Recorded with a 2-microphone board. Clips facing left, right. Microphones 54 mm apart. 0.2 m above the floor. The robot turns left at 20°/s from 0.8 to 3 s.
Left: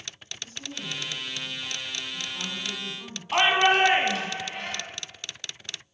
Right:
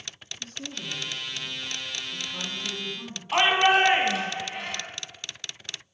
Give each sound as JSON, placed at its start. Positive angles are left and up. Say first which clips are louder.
{"t": 0.4, "sound": "a woman speaking", "louder": "even", "azimuth_deg": -70, "distance_m": 3.0}
{"t": 3.3, "sound": "a shout", "louder": "even", "side_deg": 0, "distance_m": 1.3}